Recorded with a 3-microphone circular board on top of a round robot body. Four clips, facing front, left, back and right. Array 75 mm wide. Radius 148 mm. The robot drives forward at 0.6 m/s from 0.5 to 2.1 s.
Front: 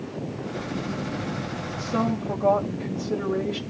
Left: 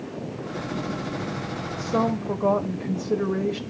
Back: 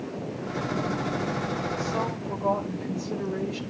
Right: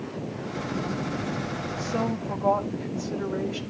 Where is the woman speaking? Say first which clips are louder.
Left 5 dB, front 3 dB; 75° left, 5.5 m.